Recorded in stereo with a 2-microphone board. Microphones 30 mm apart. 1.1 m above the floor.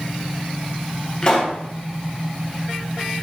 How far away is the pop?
About 0.9 m.